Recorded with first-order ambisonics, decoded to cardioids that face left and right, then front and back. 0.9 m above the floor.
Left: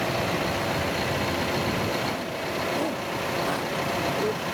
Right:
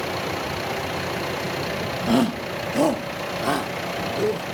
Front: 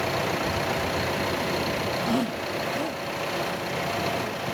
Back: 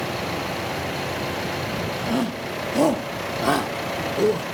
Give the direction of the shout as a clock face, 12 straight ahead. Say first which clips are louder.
Right 6 dB, back 1 dB; 3 o'clock.